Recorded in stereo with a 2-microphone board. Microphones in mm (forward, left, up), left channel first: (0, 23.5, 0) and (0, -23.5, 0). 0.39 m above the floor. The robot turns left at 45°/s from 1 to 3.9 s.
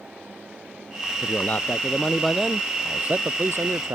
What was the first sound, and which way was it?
A man speaking, 50° left.